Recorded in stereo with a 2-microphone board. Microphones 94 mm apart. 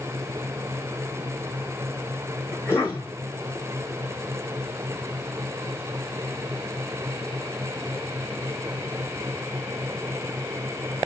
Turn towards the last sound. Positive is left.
turn(degrees=30)  # may be behind; listen again after turning